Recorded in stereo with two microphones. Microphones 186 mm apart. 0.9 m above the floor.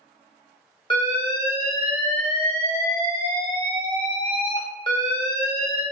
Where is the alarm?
25° left (ahead or behind), 0.7 m.